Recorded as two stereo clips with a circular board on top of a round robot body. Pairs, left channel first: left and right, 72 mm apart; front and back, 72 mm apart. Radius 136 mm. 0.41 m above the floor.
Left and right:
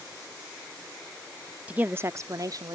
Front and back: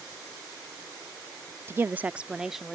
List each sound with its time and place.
1.7 s a woman speaking: 150° right; by 2.8 s 90° right